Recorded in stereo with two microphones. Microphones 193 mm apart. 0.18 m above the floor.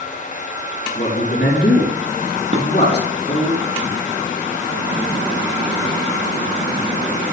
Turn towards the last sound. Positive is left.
turn(degrees=-35)  # may be behind; listen again after turning